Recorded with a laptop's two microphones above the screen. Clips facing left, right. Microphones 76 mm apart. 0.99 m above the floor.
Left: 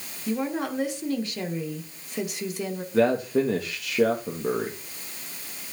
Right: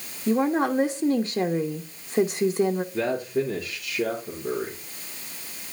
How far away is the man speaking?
About 1.1 m.